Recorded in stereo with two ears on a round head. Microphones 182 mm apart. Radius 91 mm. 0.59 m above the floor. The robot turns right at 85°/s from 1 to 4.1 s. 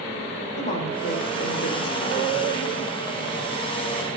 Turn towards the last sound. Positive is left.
turn(degrees=-55)